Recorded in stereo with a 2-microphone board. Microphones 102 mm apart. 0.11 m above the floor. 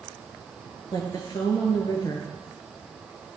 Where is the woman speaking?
45° left (ahead or behind), 1.8 m.